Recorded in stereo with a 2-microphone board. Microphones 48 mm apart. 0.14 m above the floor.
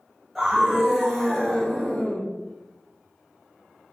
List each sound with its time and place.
0.3 s a scream: 15° right (ahead or behind), 1.3 m; by 2.2 s 25° left (ahead or behind), 1.2 m